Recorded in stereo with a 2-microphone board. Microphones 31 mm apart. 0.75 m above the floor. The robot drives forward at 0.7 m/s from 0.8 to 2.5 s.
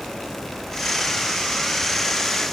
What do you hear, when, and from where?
Only background noise.